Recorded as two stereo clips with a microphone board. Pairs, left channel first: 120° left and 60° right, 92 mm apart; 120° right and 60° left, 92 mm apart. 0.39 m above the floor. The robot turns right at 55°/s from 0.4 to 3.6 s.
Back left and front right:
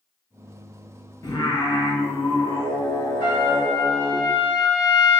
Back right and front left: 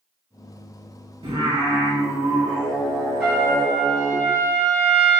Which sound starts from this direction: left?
Singing, at 1.2 s.